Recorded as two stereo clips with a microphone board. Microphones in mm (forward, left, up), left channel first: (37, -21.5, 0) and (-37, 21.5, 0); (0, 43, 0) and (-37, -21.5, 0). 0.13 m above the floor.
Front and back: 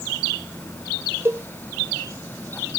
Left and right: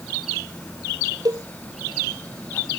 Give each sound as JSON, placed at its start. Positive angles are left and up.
{"t": 1.2, "sound": "a cowbell", "azimuth_deg": -150}